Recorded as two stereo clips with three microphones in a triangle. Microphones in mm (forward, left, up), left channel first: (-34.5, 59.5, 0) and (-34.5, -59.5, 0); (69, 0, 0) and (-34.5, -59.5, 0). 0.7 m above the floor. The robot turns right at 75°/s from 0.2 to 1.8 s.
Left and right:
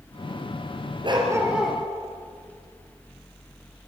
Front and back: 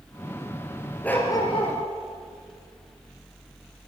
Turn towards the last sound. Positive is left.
turn(degrees=10)